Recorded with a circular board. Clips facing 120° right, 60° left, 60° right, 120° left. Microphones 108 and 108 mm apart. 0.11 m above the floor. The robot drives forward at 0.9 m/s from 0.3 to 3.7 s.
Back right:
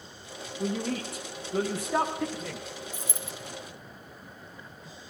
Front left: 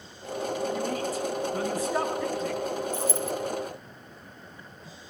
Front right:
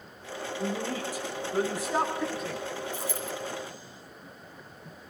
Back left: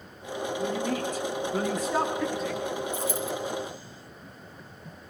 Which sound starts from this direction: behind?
A dropped coin, at 2.9 s.